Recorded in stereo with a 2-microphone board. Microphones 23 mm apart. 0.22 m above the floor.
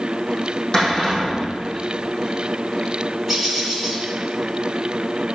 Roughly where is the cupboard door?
Left.